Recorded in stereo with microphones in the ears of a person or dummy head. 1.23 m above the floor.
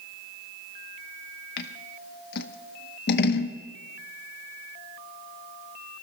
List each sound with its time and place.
1.6 s scissors: 60° left (ahead or behind), 0.9 m